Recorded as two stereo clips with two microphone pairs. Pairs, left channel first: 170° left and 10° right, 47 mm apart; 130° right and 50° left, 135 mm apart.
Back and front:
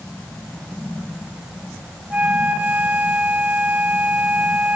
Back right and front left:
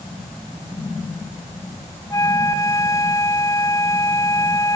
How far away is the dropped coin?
I don't hear a dropped coin.